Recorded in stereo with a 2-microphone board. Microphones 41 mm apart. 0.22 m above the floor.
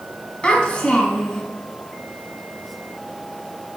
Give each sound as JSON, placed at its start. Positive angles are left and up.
{"t": 0.4, "sound": "a child speaking", "side_deg": 25, "distance_m": 0.9}